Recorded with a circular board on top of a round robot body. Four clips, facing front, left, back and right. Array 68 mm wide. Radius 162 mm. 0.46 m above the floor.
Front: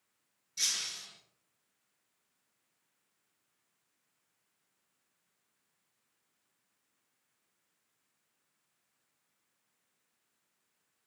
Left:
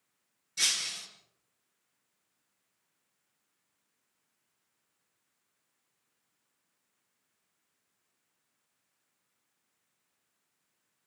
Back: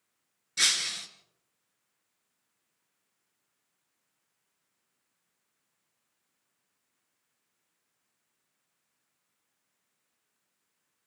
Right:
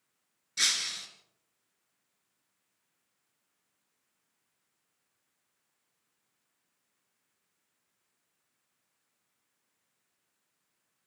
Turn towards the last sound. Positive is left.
turn(degrees=-160)